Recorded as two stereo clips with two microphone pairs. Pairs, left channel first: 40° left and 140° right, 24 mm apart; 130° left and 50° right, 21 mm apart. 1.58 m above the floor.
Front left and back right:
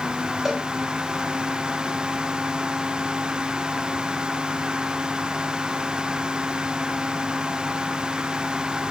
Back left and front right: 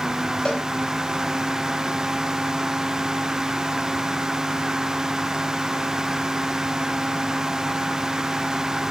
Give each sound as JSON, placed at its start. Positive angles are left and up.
{"t": 0.5, "sound": "a cowbell", "azimuth_deg": 150, "distance_m": 2.5}